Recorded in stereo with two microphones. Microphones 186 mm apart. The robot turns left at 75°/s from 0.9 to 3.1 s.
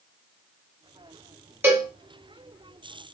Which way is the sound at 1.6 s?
10° right (ahead or behind).